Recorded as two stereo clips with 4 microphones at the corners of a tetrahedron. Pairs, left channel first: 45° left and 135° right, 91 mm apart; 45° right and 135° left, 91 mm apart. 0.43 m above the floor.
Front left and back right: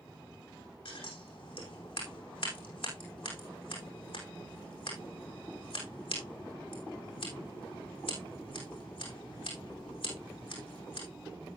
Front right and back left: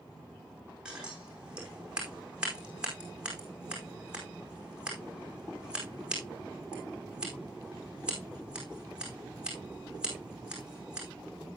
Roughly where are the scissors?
Ahead left.